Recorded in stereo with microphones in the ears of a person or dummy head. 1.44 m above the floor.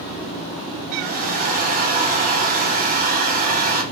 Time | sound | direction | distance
0.9 | a hair dryer | 35° right (ahead or behind) | 1.0 m